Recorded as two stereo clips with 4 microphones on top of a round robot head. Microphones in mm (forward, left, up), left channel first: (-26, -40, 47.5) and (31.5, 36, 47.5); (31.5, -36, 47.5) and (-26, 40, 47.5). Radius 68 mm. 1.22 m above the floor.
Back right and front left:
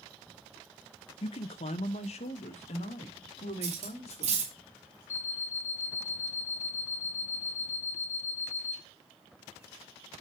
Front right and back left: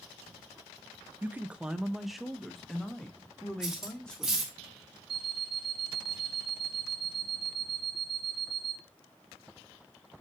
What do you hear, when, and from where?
1.2 s a man speaking: 160° right, 0.6 m; by 4.5 s 135° right, 3 m
3.6 s cutlery clinking: 40° left, 2.5 m
5.1 s an alarm clock: 170° left, 1.6 m